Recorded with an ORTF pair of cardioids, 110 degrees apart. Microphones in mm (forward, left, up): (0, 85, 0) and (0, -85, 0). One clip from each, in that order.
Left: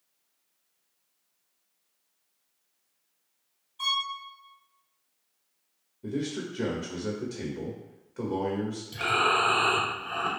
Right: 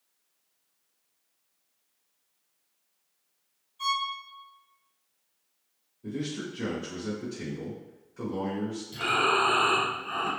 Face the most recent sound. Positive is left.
turn(degrees=25)